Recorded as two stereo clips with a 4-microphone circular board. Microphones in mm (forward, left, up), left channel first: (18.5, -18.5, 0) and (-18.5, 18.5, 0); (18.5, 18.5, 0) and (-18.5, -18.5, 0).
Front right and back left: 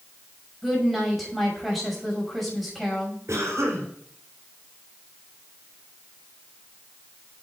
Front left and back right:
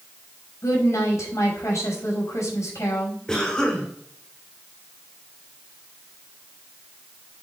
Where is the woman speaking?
45° left, 6 m.